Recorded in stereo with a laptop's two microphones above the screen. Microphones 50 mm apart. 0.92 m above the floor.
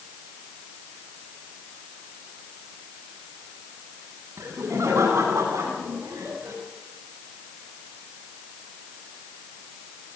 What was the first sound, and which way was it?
Laughter, 75° right (ahead or behind).